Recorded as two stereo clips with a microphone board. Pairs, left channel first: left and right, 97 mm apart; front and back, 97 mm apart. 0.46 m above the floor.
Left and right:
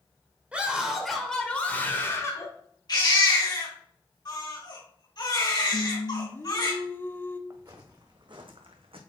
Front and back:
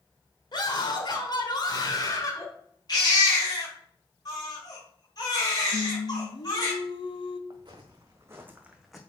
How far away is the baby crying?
About 4 m.